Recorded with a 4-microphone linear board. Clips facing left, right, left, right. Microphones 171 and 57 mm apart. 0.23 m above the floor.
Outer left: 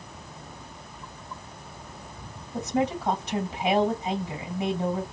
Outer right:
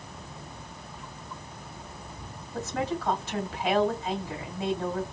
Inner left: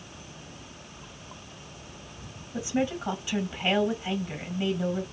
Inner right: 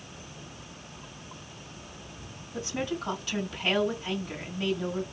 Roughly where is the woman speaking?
Centre.